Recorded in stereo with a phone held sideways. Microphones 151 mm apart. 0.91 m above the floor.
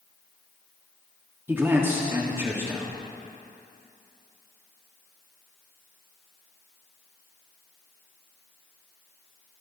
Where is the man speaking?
15° right (ahead or behind), 1.4 m.